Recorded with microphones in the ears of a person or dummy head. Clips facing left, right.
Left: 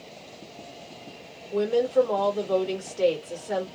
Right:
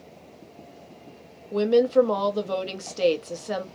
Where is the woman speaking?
60° right (ahead or behind), 0.9 m.